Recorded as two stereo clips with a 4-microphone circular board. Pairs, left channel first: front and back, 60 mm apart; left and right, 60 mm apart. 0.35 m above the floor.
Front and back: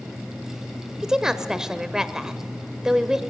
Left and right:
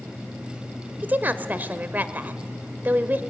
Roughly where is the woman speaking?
Right.